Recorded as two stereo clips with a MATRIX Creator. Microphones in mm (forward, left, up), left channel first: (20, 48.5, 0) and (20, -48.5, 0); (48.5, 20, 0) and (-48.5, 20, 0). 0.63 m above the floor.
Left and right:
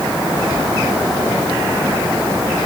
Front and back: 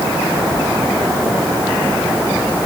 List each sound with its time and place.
Only background noise.